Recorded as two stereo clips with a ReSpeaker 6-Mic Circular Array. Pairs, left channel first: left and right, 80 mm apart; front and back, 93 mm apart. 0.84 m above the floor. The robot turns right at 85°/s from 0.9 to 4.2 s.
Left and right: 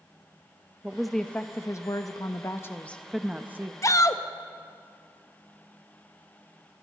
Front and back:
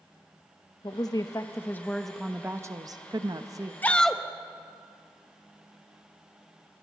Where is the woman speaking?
15° right, 0.8 m; by 3.7 s 135° right, 0.8 m.